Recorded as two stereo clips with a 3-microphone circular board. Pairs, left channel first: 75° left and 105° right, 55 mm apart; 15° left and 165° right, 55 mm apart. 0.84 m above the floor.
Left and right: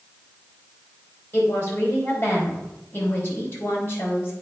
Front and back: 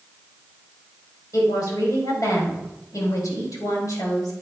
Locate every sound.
1.3 s a woman speaking: 20° left, 3 m